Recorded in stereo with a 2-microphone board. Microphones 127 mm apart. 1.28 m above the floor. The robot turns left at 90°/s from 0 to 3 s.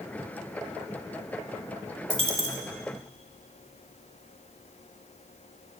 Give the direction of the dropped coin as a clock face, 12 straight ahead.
2 o'clock.